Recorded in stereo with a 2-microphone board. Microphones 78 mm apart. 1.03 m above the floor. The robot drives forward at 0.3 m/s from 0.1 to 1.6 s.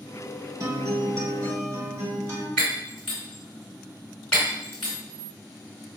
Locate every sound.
0.6 s a guitar: 45° right (ahead or behind), 0.7 m; by 2.5 s 30° right (ahead or behind), 0.9 m
2.6 s breaking glass: 10° left (ahead or behind), 1.6 m